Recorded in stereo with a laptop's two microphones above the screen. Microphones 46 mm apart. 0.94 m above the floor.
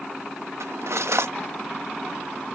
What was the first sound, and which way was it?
Cutlery clinking, 75° right (ahead or behind).